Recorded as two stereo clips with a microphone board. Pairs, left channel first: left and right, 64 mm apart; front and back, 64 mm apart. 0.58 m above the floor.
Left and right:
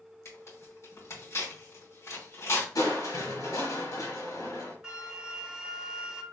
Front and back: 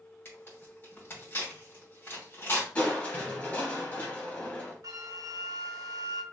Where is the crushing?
65° left, 1.4 m.